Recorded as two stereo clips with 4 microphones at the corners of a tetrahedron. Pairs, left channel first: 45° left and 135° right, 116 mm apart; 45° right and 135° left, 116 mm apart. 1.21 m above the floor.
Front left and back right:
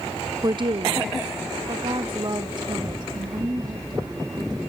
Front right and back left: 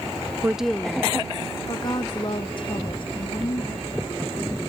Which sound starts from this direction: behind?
A woman speaking, at 0.4 s.